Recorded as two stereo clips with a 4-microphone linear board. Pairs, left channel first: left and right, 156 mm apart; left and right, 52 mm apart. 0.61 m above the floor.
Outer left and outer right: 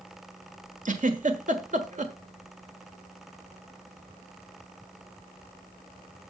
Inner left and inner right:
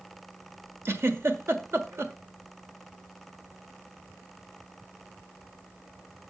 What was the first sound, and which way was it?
A giggle, 50° right (ahead or behind).